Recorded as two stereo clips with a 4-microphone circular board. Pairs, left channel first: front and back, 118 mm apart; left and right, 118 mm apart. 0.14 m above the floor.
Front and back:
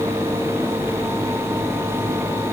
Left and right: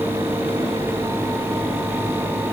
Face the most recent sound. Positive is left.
No sound to turn to.